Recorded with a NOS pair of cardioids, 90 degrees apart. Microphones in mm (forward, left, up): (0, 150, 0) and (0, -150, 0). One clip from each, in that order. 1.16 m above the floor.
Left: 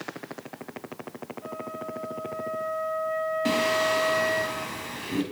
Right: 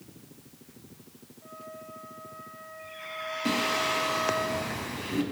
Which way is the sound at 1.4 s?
55° left.